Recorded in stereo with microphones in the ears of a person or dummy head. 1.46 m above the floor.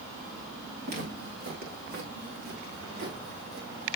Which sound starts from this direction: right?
Footsteps, at 0.8 s.